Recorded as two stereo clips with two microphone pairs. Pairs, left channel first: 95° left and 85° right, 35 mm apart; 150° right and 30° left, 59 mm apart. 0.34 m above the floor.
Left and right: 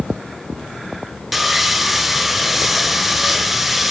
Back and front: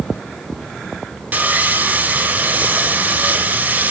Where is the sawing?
Straight ahead, 0.8 m.